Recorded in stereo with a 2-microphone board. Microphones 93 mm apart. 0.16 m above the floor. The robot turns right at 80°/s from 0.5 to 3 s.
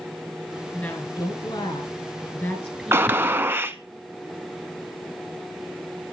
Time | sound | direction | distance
0.7 | a woman speaking | 10° left | 2 m
2.9 | a gunshot | 30° right (ahead or behind) | 0.5 m